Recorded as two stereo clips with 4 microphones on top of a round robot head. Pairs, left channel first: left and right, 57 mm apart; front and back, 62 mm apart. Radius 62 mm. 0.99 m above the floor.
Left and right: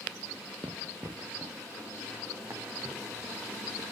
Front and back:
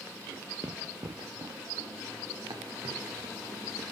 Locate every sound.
0.6 s running footsteps: 125° right, 1.7 m; by 3.8 s 160° right, 4 m